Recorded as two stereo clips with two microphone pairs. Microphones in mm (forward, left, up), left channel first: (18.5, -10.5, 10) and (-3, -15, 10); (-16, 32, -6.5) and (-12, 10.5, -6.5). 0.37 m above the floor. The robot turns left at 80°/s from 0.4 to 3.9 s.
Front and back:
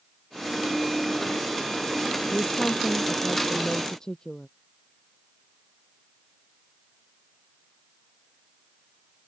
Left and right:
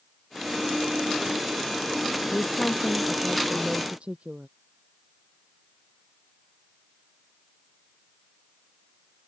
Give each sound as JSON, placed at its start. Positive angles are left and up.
{"t": 2.3, "sound": "a woman speaking", "azimuth_deg": 80}